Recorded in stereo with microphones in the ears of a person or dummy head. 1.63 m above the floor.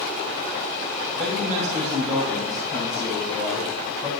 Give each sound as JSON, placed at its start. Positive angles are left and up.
{"t": 1.1, "sound": "a man speaking", "side_deg": -45, "distance_m": 3.5}